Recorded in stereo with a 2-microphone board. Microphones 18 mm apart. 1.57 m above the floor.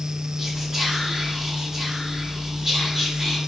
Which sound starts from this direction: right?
Whispering, at 0.4 s.